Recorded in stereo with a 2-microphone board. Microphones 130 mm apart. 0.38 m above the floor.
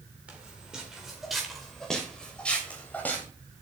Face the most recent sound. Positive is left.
turn(degrees=15)  # may be behind; listen again after turning